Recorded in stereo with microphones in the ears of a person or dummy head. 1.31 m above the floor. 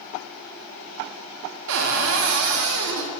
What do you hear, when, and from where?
1.7 s a cupboard door: 55° right (ahead or behind), 0.5 m